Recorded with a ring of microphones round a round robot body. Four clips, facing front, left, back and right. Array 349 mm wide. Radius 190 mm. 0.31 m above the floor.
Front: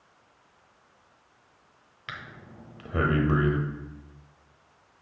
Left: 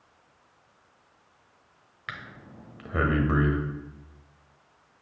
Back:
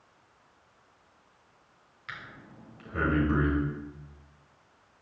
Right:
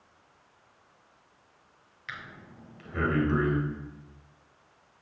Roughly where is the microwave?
No microwave in this recording.